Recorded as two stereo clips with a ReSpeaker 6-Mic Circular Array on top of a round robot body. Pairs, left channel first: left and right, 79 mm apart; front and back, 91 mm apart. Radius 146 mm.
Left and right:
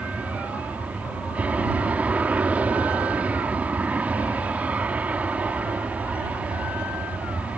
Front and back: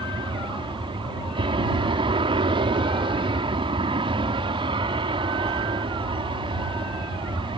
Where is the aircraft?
160° right.